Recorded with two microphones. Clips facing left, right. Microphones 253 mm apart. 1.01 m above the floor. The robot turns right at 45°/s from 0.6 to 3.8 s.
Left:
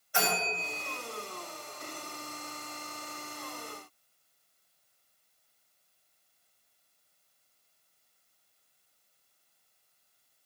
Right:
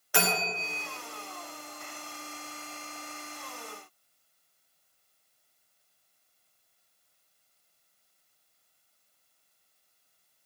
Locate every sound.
0.1 s a bell: 85° right, 1.6 m; by 0.9 s 75° right (ahead or behind), 1.6 m